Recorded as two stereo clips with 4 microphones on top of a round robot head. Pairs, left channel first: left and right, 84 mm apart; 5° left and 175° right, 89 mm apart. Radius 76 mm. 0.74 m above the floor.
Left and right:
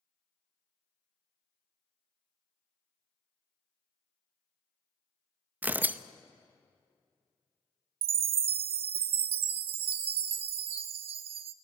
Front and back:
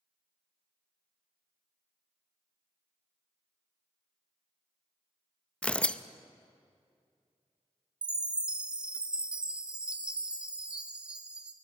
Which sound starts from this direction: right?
A chime, at 8.0 s.